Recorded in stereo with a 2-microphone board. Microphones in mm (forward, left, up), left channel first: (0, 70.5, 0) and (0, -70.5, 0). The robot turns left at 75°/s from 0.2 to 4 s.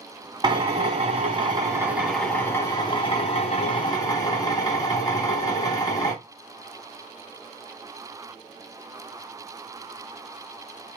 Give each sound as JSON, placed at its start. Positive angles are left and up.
{"t": 0.4, "sound": "a drill", "azimuth_deg": -50, "distance_m": 1.2}